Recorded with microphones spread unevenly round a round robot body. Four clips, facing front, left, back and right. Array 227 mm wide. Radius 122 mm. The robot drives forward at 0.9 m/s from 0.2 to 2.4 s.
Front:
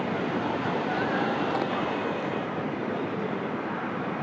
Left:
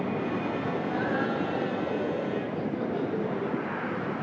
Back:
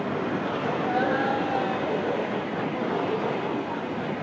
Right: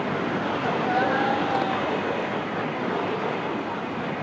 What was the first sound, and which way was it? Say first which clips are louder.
Laughter: right 6 dB, back 3 dB; 125° right.